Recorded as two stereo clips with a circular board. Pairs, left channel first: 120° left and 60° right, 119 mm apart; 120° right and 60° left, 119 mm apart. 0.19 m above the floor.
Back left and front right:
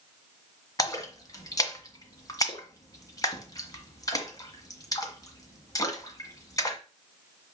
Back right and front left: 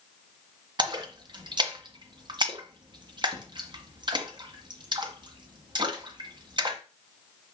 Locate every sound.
0.8 s a splash: 80° left, 1.7 m